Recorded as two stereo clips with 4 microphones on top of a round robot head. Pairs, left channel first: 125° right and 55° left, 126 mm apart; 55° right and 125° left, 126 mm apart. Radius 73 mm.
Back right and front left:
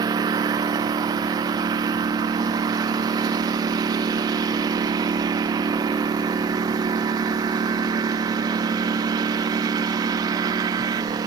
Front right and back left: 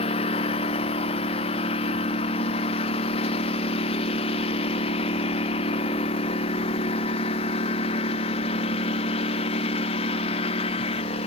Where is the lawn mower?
5° right; by 11.3 s 10° right.